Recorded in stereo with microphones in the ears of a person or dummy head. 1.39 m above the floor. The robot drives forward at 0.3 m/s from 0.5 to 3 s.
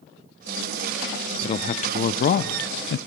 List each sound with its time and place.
1.4 s a man speaking: 35° left (ahead or behind), 0.7 m; by 3.0 s 70° left (ahead or behind), 0.5 m